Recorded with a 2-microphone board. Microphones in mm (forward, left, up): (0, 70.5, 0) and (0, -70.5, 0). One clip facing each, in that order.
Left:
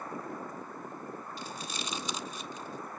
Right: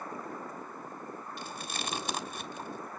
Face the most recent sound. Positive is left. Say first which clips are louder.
# even
turn(degrees=-55)  # may be behind; listen again after turning